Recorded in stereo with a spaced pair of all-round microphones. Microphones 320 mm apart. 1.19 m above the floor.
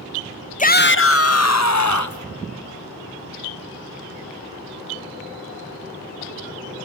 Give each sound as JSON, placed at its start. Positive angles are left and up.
{"t": 0.6, "sound": "a shout", "side_deg": 25, "distance_m": 0.6}